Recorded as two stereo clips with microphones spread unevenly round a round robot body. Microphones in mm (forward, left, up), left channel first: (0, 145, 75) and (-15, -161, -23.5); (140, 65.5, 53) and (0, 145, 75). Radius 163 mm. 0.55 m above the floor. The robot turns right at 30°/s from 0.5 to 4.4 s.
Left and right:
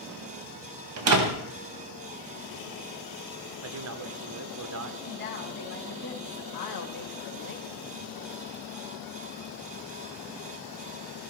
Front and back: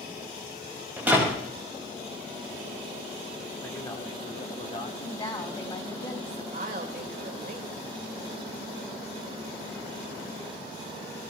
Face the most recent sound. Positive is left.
turn(degrees=120)